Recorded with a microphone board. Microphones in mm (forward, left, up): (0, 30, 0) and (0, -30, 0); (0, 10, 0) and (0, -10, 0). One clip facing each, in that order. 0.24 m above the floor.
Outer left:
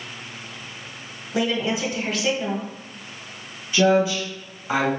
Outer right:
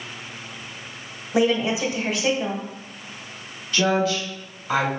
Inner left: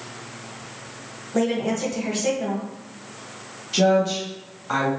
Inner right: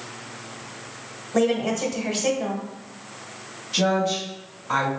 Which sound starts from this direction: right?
A woman speaking, at 1.3 s.